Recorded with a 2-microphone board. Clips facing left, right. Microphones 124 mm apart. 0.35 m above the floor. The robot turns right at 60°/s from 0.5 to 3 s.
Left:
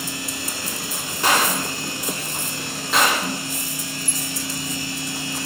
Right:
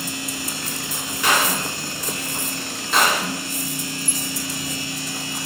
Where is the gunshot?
35° left (ahead or behind), 0.8 m; by 3.3 s 5° right (ahead or behind), 0.8 m.